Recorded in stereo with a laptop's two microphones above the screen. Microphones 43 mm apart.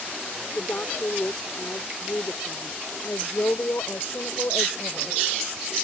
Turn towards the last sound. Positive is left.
turn(degrees=75)  # may be behind; listen again after turning